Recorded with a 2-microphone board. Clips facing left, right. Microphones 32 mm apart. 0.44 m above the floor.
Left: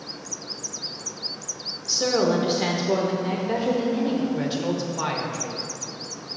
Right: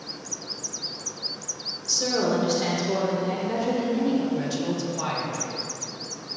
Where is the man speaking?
30° left (ahead or behind), 1.3 m.